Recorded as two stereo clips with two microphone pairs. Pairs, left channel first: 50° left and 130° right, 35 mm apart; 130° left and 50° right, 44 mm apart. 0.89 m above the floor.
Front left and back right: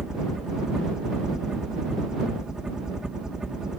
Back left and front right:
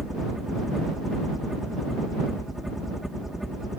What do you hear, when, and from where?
0.0 s a helicopter: 120° right